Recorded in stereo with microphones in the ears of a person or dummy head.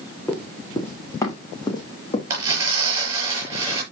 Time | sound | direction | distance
0.3 | running footsteps | 10° left (ahead or behind) | 4 m
2.3 | tearing paper | 15° right (ahead or behind) | 6 m